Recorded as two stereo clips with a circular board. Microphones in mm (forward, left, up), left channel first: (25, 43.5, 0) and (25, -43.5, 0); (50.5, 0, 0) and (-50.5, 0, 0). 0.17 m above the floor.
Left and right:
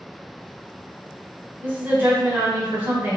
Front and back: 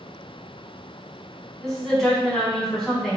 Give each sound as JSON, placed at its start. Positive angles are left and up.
{"t": 1.6, "sound": "a woman speaking", "azimuth_deg": -85, "distance_m": 1.1}